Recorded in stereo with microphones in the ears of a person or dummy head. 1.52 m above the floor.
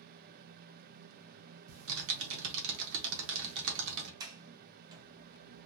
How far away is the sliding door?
About 0.6 m.